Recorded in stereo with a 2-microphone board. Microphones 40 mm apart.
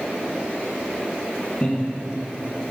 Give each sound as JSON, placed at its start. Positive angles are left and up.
{"t": 1.6, "sound": "laughter", "side_deg": 25, "distance_m": 5.5}